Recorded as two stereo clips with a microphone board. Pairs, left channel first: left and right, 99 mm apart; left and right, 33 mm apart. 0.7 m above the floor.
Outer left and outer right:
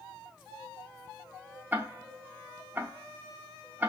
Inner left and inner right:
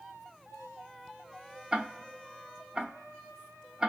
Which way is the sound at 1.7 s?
20° right (ahead or behind).